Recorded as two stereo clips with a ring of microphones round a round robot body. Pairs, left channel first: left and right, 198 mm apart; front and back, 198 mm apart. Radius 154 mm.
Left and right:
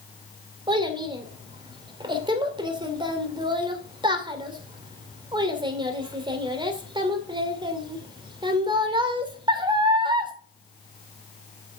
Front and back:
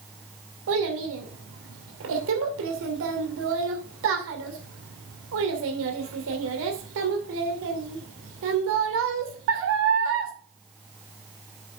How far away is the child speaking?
About 2.5 m.